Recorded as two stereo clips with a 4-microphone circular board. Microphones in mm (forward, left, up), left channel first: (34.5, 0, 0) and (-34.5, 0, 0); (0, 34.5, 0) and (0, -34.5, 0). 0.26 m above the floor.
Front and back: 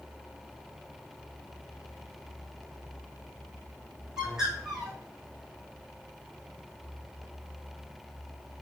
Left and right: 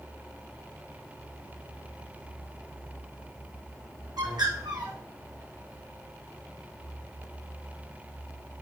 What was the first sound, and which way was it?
A bird, 95° right.